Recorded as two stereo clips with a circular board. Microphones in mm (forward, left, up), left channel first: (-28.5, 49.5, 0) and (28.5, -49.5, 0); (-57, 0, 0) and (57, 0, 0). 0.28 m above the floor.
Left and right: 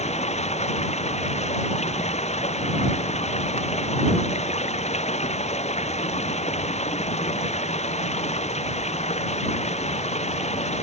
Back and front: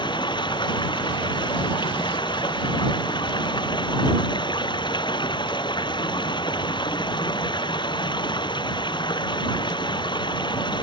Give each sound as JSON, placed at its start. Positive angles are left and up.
{"t": 0.0, "sound": "running water", "azimuth_deg": 130}